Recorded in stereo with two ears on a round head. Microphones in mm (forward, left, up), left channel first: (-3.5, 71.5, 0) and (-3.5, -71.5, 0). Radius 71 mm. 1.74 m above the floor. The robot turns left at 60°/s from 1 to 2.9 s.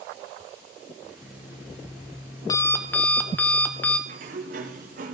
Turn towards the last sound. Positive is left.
turn(degrees=-55)  # may be behind; listen again after turning